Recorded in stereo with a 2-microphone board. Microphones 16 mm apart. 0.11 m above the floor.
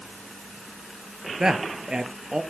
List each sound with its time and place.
1.4 s a man speaking: 45° right (ahead or behind), 2 m